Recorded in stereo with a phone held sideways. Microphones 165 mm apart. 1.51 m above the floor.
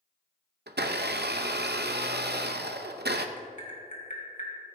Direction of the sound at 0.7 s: 85° right.